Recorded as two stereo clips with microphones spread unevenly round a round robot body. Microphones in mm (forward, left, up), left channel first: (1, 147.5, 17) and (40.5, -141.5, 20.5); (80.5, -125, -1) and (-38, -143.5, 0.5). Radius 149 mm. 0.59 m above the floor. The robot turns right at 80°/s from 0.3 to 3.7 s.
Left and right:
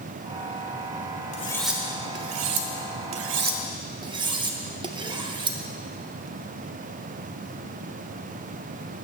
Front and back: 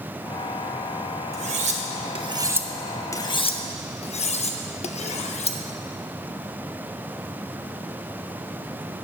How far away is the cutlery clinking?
About 0.7 m.